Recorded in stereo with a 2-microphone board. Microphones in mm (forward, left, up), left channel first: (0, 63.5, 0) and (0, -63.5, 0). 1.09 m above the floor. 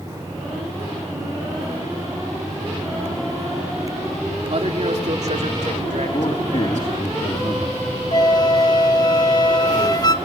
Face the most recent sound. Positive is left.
turn(degrees=35)  # may be behind; listen again after turning